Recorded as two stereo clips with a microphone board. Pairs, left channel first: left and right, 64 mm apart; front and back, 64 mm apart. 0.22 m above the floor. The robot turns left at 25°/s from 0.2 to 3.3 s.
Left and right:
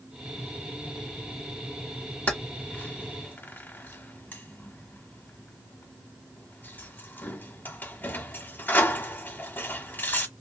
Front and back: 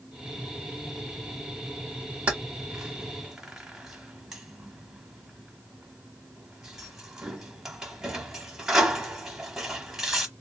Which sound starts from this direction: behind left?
Keys jangling, at 2.3 s.